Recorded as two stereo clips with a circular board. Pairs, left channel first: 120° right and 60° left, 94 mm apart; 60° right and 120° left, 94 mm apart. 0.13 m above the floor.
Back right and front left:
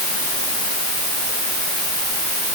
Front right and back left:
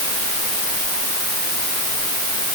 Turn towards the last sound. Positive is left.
No sound to turn to.